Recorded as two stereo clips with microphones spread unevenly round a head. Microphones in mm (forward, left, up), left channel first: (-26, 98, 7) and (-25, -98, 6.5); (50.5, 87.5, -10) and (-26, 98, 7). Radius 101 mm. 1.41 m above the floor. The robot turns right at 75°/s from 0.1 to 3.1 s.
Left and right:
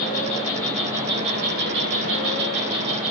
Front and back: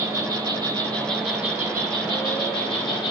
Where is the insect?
135° left, 3.5 m; by 3.1 s straight ahead, 3.5 m.